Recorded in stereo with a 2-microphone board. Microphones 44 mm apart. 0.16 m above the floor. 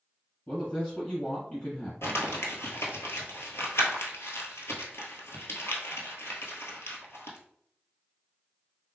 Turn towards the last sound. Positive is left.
turn(degrees=75)  # may be behind; listen again after turning